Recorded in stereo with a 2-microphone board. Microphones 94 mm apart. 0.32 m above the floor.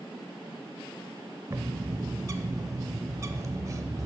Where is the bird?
35° right (ahead or behind), 0.5 m.